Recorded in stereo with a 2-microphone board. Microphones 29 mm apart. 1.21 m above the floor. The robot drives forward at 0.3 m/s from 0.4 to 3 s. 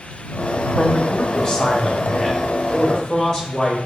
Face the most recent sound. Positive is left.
turn(degrees=25)  # may be behind; listen again after turning